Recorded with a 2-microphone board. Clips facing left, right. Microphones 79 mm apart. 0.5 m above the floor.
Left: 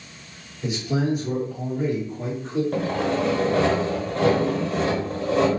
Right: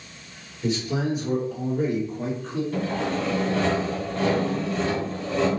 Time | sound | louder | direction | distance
0.6 | a man speaking | left 1 dB | 15° left (ahead or behind) | 1.4 m
2.7 | sawing | left 3 dB | 75° left (ahead or behind) | 0.8 m